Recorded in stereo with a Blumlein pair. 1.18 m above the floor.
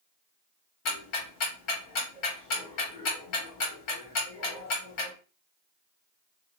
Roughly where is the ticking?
Ahead left.